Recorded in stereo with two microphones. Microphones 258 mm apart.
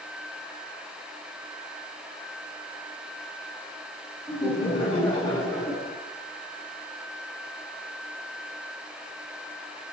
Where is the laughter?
25° left (ahead or behind), 1.8 m; by 6.0 s 10° left (ahead or behind), 1.5 m.